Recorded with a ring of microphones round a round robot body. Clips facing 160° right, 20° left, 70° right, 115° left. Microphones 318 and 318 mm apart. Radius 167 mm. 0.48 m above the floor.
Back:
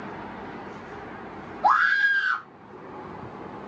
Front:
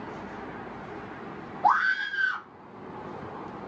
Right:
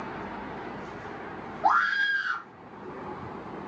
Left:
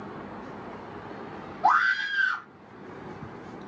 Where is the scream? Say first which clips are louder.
Back 1 dB, left 2 dB; 155° left, 4 m.